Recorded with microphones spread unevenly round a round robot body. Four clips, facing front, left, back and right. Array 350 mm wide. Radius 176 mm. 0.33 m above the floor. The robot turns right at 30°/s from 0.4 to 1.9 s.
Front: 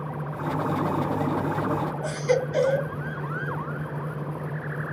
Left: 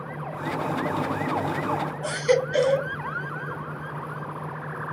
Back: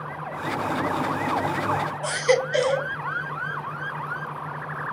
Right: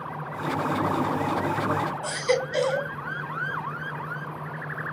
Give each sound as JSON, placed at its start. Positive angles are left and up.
{"t": 2.0, "sound": "a baby crying", "azimuth_deg": 125, "distance_m": 1.2}